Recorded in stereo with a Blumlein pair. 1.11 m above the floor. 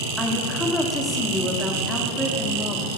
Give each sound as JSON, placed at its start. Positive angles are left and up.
{"t": 0.2, "sound": "a woman speaking", "azimuth_deg": 10, "distance_m": 2.0}